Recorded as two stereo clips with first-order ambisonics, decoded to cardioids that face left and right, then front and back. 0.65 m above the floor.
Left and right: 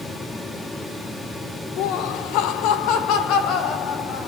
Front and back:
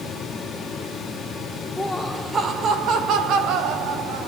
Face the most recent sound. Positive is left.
turn(degrees=145)